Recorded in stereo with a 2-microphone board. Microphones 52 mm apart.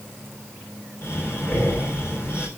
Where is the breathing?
55° left (ahead or behind), 5 m.